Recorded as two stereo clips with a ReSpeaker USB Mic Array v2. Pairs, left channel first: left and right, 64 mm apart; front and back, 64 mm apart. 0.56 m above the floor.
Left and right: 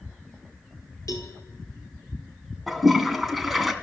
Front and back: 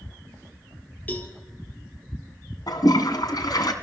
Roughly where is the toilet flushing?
Ahead.